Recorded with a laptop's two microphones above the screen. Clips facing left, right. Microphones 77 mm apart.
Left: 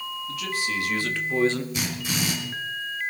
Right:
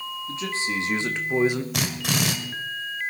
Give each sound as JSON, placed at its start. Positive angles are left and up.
{"t": 0.3, "sound": "a man speaking", "side_deg": -30, "distance_m": 1.9}
{"t": 1.7, "sound": "a drill", "side_deg": -75, "distance_m": 2.0}